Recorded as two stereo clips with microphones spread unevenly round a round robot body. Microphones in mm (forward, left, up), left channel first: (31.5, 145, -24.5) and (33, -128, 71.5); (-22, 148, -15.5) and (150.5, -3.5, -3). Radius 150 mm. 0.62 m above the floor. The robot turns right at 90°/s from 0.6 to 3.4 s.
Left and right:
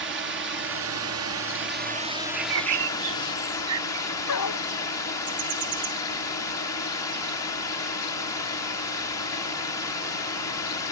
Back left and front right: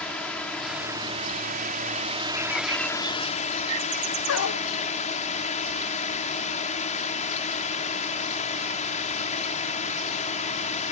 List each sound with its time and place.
0.0 s a drone: 140° right; by 10.9 s 115° left
2.4 s a bird: 155° right; by 4.0 s 60° right
4.3 s a dog barking: 125° left